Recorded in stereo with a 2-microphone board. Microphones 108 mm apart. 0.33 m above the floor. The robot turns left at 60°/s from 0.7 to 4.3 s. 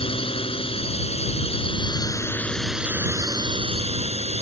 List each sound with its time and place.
0.0 s a drone: 120° left; by 4.4 s 100° right